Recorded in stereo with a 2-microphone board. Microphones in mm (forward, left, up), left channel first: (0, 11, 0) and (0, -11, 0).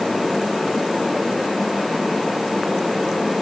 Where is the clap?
I don't hear a clap.